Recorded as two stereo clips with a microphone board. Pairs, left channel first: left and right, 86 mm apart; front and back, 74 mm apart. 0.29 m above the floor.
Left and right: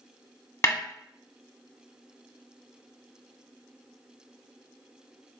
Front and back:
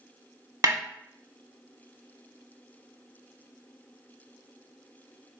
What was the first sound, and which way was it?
A snare drum, 145° left.